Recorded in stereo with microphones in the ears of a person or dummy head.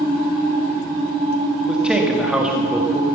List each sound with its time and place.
0.0 s a machine running: 20° right (ahead or behind), 8 m
1.7 s a man speaking: 10° right (ahead or behind), 1.7 m